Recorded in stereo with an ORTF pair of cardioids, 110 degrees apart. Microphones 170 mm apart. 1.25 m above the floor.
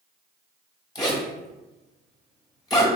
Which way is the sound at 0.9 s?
25° left.